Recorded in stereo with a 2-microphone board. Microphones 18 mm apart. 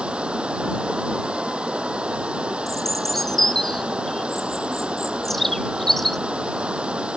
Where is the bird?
10° left (ahead or behind).